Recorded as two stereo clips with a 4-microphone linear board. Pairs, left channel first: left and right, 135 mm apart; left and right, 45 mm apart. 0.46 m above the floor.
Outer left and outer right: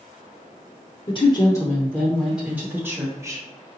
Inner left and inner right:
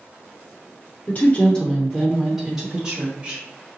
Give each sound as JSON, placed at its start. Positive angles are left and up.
{"t": 1.1, "sound": "a woman speaking", "side_deg": 35, "distance_m": 0.8}